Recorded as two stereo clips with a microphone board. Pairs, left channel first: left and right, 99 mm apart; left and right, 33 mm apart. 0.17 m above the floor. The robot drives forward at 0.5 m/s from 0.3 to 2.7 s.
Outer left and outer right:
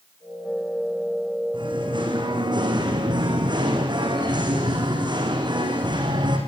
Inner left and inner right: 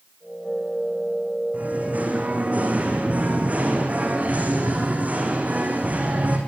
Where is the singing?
55° right (ahead or behind), 5.5 m; by 6.4 s 50° right (ahead or behind), 6 m.